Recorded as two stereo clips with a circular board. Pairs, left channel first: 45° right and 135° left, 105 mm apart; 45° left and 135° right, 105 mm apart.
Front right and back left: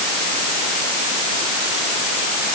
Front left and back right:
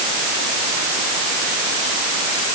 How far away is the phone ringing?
No phone ringing in this recording.